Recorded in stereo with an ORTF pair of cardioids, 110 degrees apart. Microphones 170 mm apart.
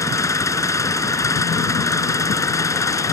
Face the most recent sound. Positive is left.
turn(degrees=15)